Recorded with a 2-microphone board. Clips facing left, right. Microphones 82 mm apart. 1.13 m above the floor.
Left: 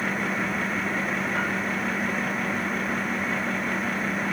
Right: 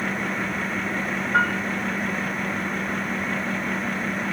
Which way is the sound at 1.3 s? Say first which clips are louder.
Right 11 dB; 75° right (ahead or behind).